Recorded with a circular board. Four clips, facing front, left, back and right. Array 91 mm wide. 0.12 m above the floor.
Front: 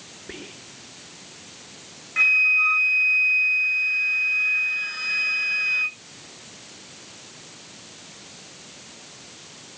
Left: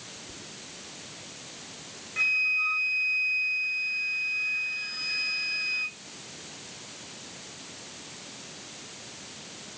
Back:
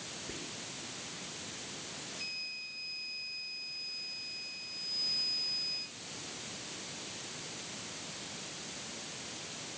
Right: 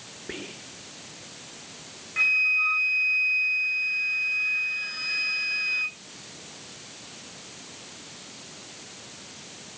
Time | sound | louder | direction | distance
0.3 | whispering | right 7 dB, front 8 dB | 60° right | ?
2.2 | a flute | right 3 dB, front 25 dB | 10° right | ?